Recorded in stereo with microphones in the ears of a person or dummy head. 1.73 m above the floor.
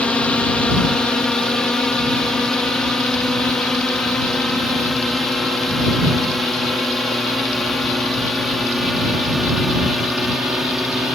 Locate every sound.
0.0 s a drone: 5° left (ahead or behind); by 11.2 s 5° right (ahead or behind)